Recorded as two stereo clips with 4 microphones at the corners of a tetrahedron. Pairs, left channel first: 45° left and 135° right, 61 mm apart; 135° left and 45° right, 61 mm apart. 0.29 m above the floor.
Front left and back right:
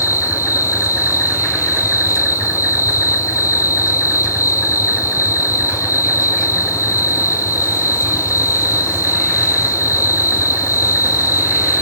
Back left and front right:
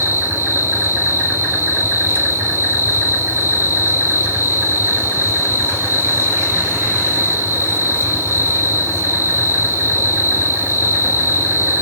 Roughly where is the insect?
Ahead.